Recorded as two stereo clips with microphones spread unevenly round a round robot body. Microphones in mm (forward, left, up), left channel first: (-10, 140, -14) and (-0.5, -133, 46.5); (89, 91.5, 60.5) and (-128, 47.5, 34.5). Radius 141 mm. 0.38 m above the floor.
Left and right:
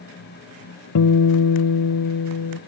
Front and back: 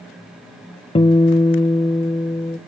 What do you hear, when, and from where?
0.9 s a guitar: 80° left, 0.6 m